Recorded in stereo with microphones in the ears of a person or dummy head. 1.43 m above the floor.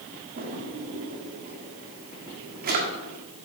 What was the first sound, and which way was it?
A drawer, 50° right (ahead or behind).